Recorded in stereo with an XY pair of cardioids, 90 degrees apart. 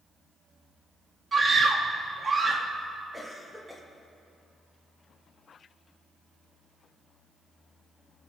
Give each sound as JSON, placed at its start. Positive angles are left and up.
{"t": 1.3, "sound": "a scream", "azimuth_deg": -40, "distance_m": 2.0}
{"t": 3.1, "sound": "a cough", "azimuth_deg": -10, "distance_m": 2.5}